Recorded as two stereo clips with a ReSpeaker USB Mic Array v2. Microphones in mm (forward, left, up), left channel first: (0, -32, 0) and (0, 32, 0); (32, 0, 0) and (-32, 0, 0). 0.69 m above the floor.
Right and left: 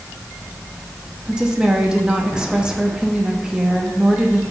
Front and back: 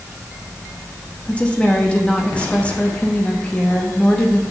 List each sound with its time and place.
1.2 s a woman speaking: 35° left, 1.0 m